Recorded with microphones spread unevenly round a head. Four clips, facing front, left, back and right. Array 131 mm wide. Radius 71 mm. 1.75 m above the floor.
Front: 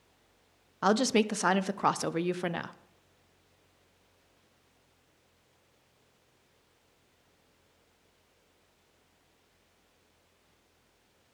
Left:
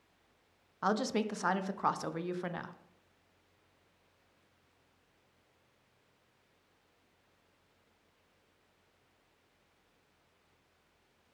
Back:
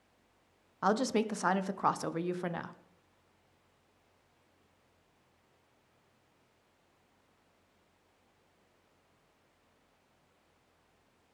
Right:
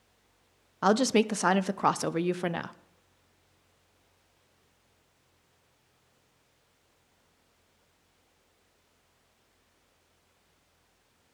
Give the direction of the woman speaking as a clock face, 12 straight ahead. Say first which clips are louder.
Right 8 dB, front 4 dB; 2 o'clock.